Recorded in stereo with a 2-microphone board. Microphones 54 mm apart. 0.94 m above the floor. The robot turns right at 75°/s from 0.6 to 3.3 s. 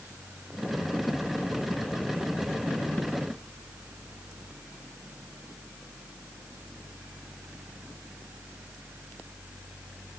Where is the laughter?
No laughter in this recording.